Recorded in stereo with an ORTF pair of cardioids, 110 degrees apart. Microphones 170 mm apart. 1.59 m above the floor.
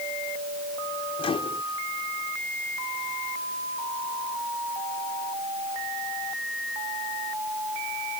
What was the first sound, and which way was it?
A microwave, 35° left.